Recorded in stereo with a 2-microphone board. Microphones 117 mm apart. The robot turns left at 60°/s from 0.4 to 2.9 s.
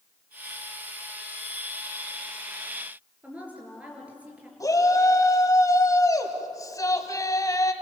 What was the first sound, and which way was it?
A woman speaking, 10° right (ahead or behind).